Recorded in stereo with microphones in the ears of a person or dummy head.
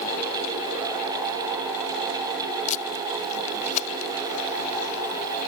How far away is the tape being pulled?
About 0.6 m.